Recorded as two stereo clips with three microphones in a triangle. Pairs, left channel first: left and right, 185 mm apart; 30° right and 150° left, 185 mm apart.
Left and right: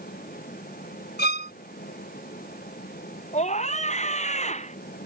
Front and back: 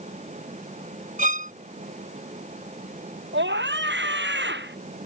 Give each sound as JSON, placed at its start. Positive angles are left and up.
{"t": 1.2, "sound": "a violin", "azimuth_deg": 110}
{"t": 3.3, "sound": "a scream", "azimuth_deg": 140}